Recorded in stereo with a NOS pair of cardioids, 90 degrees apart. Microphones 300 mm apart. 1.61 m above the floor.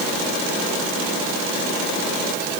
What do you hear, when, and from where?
Only background noise.